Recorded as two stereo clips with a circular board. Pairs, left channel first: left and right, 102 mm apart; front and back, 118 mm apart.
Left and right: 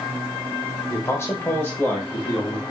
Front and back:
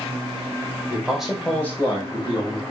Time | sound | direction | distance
0.9 | a man speaking | 120° left | 1.3 m